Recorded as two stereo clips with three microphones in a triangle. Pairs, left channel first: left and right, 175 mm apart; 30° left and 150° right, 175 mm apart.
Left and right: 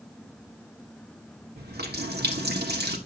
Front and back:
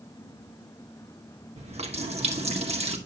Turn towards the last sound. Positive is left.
turn(degrees=-100)